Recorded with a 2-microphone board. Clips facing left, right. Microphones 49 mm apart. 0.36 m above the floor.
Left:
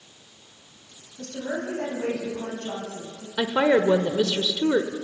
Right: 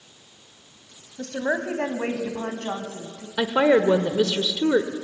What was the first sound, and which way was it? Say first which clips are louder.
A woman speaking: right 5 dB; 60° right (ahead or behind).